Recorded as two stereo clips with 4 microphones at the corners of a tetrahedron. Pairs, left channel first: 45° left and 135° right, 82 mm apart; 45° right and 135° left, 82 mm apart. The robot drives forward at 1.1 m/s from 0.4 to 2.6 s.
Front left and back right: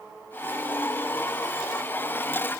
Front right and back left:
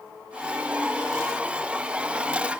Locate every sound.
Only background noise.